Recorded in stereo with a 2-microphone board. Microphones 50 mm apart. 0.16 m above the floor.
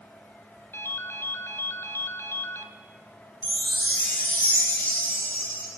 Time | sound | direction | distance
0.7 | a ringtone | 55° left (ahead or behind) | 1.0 m
3.4 | a chime | 35° left (ahead or behind) | 5 m